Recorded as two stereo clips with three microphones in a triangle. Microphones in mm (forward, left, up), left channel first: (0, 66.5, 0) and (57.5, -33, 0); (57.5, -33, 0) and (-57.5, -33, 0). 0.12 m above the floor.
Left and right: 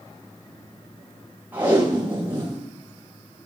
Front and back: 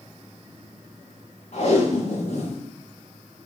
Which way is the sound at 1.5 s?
10° left.